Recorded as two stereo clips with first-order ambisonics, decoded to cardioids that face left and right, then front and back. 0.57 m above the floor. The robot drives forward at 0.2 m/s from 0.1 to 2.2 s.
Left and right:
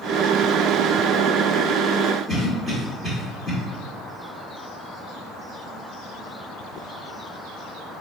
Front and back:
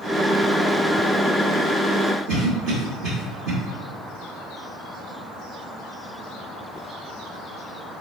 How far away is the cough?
About 1.2 m.